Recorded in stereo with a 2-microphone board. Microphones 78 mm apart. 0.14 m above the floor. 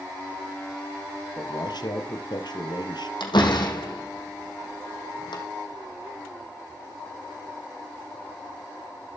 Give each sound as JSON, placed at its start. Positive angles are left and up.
{"t": 1.4, "sound": "a man speaking", "side_deg": 65, "distance_m": 2.5}
{"t": 3.2, "sound": "a door slam", "side_deg": 75, "distance_m": 4.5}